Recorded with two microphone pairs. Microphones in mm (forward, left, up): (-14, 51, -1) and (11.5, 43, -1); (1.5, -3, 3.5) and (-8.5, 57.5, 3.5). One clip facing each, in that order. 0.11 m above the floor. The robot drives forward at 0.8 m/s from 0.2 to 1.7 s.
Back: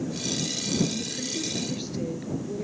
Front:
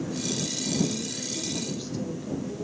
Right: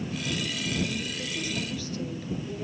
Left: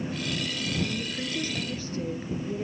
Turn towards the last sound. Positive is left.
turn(degrees=140)